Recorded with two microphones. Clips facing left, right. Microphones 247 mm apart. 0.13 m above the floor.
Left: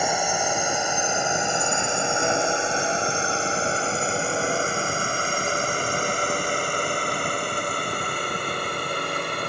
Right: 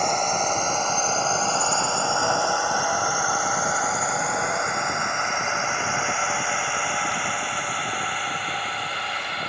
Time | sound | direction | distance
0.0 | a drone | 10° left (ahead or behind) | ?